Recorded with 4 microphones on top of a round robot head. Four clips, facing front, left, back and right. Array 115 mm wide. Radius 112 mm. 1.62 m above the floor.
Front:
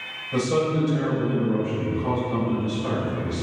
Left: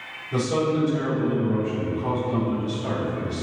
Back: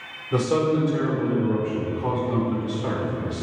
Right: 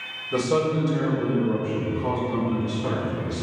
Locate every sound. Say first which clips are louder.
0.3 s a man speaking: right 1 dB, back 1 dB; 165° right, 4.5 m